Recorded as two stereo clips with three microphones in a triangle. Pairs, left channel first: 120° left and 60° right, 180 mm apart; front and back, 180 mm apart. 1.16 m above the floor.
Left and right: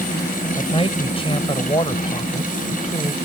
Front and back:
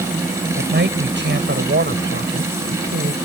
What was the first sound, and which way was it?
A man speaking, straight behind.